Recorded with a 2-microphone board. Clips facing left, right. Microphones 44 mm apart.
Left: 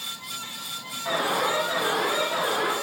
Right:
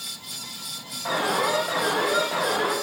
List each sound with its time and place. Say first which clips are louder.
1.1 s an alarm: right 1 dB; 65° right (ahead or behind), 6.5 m